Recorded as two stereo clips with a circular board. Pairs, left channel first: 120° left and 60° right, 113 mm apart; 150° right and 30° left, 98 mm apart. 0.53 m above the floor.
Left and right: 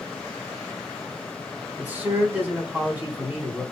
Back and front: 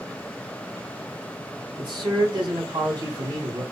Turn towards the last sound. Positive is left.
turn(degrees=10)